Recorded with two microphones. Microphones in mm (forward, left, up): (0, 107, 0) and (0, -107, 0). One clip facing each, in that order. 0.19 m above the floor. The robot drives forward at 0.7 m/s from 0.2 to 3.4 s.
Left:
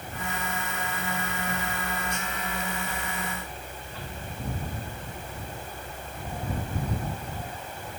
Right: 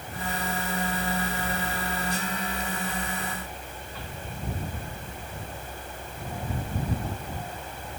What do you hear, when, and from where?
Only background noise.